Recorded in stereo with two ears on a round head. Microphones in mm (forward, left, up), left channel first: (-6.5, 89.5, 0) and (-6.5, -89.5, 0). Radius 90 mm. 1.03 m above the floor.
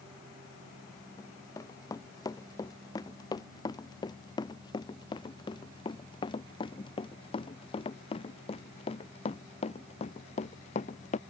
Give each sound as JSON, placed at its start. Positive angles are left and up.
{"t": 1.2, "sound": "running footsteps", "side_deg": 15}